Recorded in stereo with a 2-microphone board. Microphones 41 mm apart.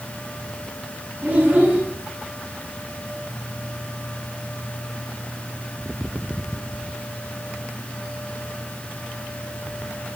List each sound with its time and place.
1.2 s a child speaking: 60° right (ahead or behind), 4.5 m